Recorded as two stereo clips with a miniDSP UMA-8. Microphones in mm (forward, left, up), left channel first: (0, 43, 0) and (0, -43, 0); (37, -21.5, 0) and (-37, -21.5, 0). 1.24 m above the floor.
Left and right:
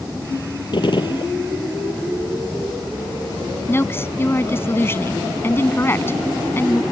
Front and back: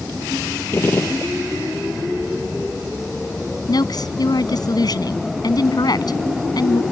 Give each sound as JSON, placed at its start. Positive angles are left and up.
{"t": 0.7, "sound": "a gunshot", "azimuth_deg": 60}
{"t": 3.7, "sound": "a woman speaking", "azimuth_deg": 25}